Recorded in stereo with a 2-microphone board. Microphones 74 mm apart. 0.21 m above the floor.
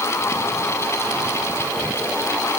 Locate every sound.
Only background noise.